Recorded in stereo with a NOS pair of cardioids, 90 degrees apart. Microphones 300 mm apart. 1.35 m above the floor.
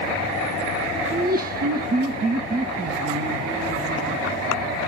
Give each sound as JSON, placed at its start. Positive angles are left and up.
{"t": 1.1, "sound": "laughter", "azimuth_deg": -30, "distance_m": 0.8}